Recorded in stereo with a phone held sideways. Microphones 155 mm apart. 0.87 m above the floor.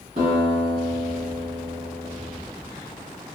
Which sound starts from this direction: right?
A guitar, at 0.2 s.